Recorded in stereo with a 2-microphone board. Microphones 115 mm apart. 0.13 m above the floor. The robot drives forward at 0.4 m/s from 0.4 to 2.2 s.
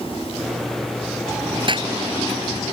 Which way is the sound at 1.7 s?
45° right (ahead or behind).